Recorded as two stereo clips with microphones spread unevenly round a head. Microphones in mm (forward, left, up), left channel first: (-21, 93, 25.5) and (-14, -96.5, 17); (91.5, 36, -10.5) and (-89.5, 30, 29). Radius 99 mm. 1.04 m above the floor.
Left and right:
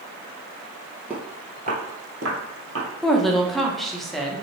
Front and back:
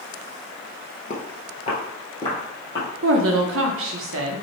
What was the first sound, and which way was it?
Footsteps, 10° right.